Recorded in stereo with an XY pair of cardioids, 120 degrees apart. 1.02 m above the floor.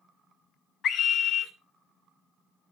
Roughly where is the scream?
Ahead left.